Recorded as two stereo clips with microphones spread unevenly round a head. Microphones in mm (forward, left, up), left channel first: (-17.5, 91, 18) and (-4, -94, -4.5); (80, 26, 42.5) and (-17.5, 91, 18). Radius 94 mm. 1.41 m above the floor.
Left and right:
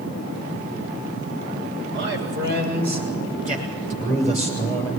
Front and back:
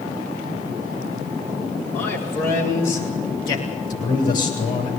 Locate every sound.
1.9 s a man speaking: 50° right, 7 m; by 4.9 s 20° right, 7 m